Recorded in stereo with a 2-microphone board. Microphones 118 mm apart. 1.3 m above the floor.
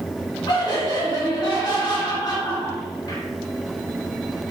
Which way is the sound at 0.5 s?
35° left (ahead or behind).